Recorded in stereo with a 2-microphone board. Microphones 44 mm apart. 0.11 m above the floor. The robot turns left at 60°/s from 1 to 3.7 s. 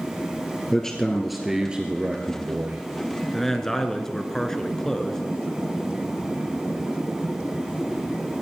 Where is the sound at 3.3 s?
5° left (ahead or behind), 1.2 m; by 5.2 s 10° left (ahead or behind), 1.2 m.